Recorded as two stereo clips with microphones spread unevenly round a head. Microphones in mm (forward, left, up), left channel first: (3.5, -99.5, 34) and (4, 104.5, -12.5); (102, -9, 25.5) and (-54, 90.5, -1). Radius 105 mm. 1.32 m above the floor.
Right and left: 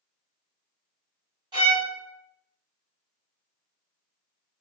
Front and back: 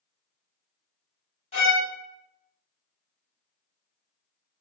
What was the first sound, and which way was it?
A violin, 15° left.